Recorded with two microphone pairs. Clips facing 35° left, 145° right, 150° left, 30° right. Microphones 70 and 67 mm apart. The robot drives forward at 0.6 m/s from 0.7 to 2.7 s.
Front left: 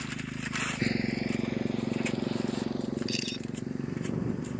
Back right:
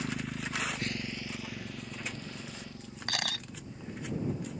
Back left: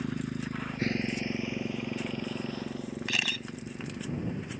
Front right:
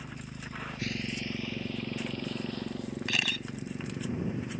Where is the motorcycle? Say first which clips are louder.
Even, back left 9 dB; 140° left; by 4.6 s 50° left.